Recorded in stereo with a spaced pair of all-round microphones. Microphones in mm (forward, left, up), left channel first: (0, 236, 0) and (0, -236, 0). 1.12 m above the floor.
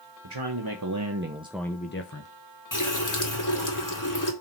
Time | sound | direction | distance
0.2 | a man speaking | 60° right (ahead or behind) | 1.3 m
2.7 | a running tap | 40° left (ahead or behind) | 1.7 m